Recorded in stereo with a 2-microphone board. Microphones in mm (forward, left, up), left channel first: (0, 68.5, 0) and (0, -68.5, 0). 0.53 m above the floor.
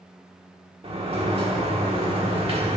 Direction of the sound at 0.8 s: 40° right (ahead or behind).